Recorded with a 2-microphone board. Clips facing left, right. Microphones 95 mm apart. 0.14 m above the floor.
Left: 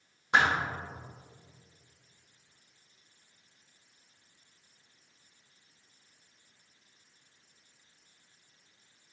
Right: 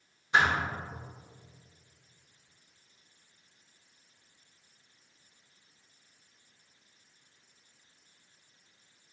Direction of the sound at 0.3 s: 65° left (ahead or behind).